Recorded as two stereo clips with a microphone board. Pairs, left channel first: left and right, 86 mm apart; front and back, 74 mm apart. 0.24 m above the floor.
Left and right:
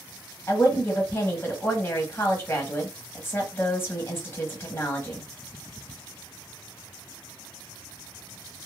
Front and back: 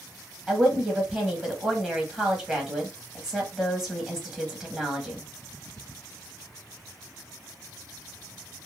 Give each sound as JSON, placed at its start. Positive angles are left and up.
{"t": 0.5, "sound": "a woman speaking", "azimuth_deg": 110, "distance_m": 1.0}